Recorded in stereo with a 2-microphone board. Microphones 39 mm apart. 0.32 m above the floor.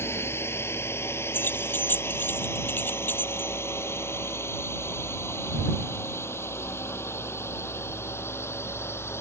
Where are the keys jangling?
50° left (ahead or behind).